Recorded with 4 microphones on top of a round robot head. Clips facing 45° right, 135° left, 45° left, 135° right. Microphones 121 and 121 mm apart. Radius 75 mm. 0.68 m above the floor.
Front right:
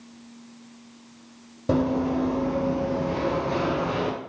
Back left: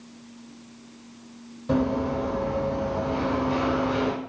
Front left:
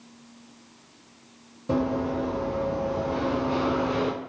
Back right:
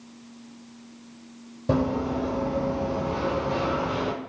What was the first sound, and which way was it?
Running footsteps, 85° right.